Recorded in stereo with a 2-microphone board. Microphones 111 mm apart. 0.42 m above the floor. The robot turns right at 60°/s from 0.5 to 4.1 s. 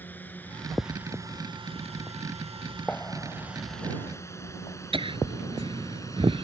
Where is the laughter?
55° right (ahead or behind).